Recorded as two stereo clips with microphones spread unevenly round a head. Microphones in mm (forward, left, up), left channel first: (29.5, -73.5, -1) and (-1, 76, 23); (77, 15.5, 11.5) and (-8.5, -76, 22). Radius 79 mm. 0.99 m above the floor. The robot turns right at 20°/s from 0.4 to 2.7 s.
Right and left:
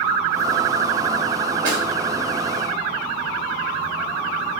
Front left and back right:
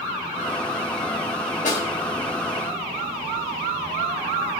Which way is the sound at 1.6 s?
90° left.